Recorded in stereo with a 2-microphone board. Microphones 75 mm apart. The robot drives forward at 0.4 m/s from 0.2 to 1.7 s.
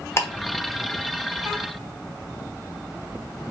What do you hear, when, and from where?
0.2 s ticking: 35° left (ahead or behind), 1.1 m; by 0.3 s 40° left (ahead or behind), 1.0 m